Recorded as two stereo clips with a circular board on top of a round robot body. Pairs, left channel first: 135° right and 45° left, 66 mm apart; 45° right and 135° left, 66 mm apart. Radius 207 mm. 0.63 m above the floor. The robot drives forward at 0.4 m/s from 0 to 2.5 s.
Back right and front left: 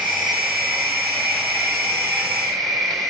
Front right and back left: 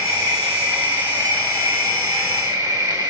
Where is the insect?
135° left, 7 m; by 3.1 s 140° left, 7.5 m.